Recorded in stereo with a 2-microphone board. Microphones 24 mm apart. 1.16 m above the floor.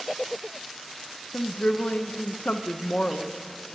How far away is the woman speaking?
About 0.6 m.